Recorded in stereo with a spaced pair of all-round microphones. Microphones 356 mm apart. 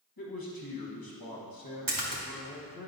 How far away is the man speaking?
About 1.3 m.